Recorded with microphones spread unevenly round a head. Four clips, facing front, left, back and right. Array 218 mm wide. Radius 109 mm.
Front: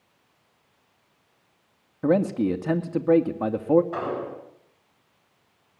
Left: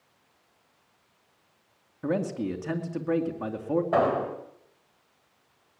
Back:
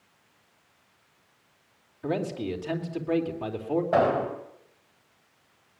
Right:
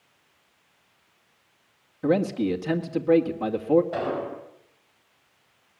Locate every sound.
2.0 s a man speaking: 5° right, 2.5 m
3.9 s an explosion: 135° left, 5 m